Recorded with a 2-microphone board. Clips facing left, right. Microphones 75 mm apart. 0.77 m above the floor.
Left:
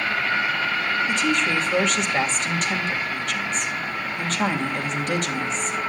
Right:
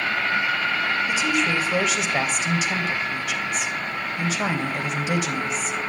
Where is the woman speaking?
5° right (ahead or behind), 3 m.